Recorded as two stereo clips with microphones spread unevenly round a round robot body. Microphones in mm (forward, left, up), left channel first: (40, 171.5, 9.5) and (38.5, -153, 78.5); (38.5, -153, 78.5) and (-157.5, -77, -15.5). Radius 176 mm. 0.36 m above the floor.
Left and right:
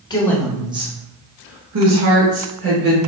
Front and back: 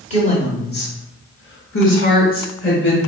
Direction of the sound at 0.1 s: 65° left.